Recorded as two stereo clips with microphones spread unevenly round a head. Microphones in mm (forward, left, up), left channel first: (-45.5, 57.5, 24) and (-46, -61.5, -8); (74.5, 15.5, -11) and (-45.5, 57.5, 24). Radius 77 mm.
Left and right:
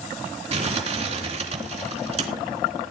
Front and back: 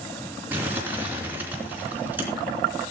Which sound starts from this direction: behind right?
Crumpling, at 0.5 s.